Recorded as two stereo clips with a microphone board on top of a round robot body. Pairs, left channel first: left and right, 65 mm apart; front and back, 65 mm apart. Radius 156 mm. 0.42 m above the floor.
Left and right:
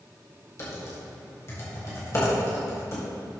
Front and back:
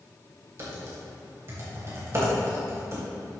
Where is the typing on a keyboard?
135° left, 3 m.